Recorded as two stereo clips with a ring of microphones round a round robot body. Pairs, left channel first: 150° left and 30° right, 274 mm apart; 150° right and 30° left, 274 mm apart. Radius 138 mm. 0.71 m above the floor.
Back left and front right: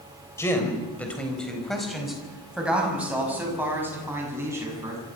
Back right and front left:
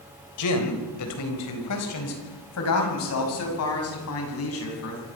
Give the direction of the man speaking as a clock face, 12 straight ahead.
4 o'clock.